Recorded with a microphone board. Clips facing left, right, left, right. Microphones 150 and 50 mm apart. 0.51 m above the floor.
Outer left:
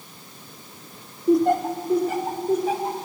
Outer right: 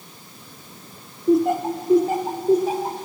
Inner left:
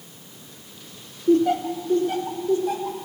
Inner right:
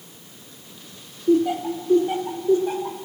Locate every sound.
1.3 s laughter: centre (ahead or behind), 1.1 m; by 3.1 s 40° right (ahead or behind), 1.8 m